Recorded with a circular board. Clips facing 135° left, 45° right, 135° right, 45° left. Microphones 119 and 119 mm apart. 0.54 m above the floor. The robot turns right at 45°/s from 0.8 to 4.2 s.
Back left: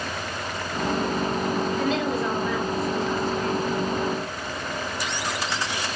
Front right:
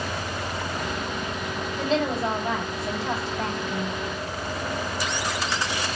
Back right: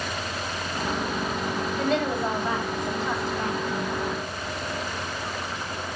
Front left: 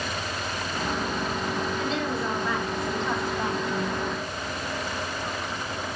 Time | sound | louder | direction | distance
1.8 | a woman speaking | even, back right 3 dB | 110° right | 3 m